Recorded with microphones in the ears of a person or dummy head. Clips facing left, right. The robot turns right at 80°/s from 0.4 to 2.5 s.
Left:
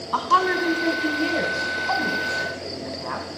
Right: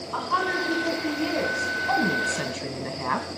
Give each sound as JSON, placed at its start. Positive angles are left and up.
{"t": 0.1, "sound": "a woman speaking", "azimuth_deg": 80, "distance_m": 1.8}